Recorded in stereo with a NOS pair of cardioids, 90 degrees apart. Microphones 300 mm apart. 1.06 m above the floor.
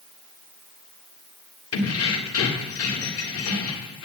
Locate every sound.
1.7 s keys jangling: 50° left, 1.9 m